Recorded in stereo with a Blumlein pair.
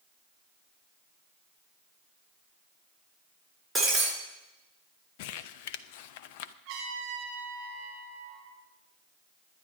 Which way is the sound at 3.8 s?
5° right.